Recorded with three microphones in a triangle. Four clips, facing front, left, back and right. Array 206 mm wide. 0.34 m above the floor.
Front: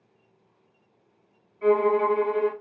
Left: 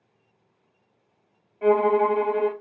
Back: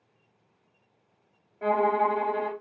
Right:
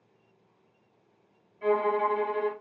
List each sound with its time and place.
1.6 s a violin: 130° left, 1.1 m